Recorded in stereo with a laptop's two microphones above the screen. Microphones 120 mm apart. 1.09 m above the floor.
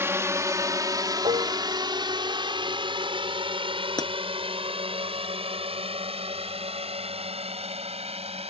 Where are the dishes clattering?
45° right (ahead or behind).